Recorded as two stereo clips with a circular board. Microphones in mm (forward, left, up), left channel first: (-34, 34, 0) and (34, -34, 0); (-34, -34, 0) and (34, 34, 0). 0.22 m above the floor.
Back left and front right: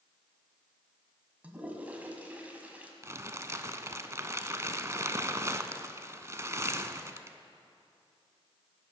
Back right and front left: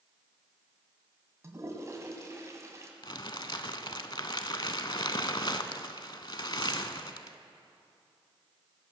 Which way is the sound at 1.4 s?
20° left.